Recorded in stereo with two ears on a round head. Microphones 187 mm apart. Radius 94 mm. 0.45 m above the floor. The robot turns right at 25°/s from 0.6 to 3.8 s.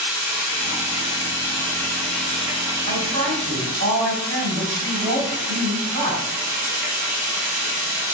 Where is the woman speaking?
50° right (ahead or behind), 2 m; by 6.2 s 60° right (ahead or behind), 2 m.